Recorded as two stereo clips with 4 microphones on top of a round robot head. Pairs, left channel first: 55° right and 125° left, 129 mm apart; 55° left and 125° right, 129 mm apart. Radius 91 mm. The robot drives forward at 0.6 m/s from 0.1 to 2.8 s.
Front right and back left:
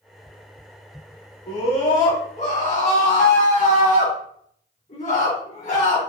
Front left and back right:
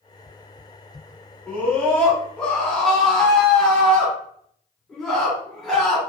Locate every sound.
1.5 s a scream: 20° right, 2 m; by 6.0 s 30° right, 1.4 m